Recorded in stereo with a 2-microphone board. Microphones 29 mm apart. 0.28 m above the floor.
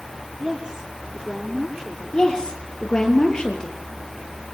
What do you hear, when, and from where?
0.4 s a woman speaking: 25° right (ahead or behind), 6.5 m
2.1 s a woman speaking: 25° left (ahead or behind), 5.5 m